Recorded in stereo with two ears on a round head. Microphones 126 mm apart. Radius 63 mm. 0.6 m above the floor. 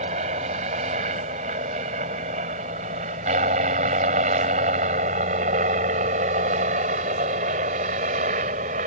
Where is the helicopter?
50° right (ahead or behind); by 8.9 s 55° right (ahead or behind).